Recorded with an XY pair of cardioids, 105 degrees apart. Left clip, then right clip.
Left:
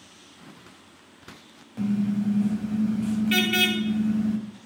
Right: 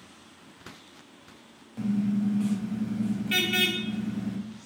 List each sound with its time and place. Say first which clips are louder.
1.8 s a car horn: left 2 dB; 20° left, 4 m